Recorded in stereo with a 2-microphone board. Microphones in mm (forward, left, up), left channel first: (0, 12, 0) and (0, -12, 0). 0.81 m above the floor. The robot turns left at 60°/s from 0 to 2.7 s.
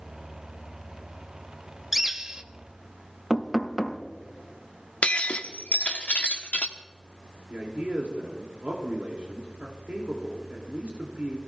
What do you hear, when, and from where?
1.9 s a bird: 10° right, 0.8 m; by 2.4 s 40° right, 0.8 m
3.3 s knocking: 5° right (ahead or behind), 1.0 m
5.0 s breaking glass: 70° left (ahead or behind), 1.0 m
7.5 s a man speaking: 75° right (ahead or behind), 2.5 m